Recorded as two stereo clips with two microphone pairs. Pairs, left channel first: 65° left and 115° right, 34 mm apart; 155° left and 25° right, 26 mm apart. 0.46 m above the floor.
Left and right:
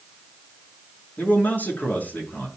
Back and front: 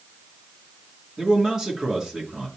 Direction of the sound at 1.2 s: 35° left.